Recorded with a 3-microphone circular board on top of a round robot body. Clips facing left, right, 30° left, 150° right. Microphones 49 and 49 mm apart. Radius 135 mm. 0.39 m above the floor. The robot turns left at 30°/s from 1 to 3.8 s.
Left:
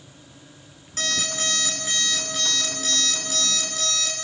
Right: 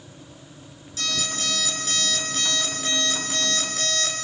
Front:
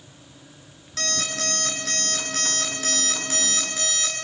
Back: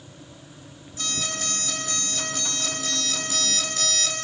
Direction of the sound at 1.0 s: 45° left.